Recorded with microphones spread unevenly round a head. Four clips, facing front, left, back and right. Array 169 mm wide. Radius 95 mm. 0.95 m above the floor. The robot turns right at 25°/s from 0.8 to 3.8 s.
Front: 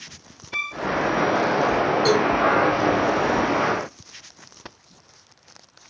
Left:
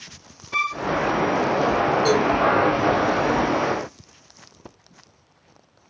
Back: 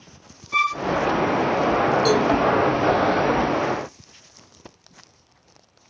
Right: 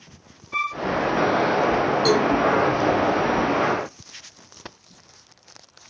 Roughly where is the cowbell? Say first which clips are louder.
Right 2 dB, front 1 dB; right.